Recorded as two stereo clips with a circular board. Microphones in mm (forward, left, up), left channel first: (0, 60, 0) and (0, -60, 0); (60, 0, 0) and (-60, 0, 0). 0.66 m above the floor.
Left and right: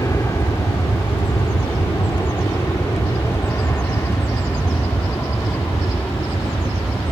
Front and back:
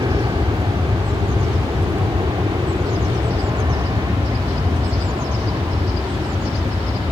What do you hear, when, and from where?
0.0 s an aircraft: 145° left; by 7.1 s 155° left